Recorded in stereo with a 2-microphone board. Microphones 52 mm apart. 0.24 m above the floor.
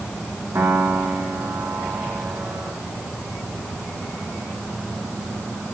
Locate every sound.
0.6 s a piano: 65° right (ahead or behind), 8 m